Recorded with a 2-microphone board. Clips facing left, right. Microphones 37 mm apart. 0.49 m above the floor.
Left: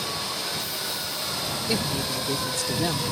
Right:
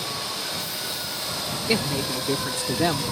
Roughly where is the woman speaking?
Right.